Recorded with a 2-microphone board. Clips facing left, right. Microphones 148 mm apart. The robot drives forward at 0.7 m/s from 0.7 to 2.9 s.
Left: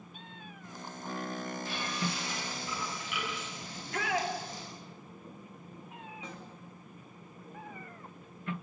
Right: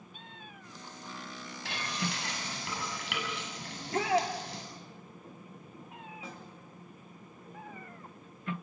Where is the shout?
30° right (ahead or behind), 3.5 m.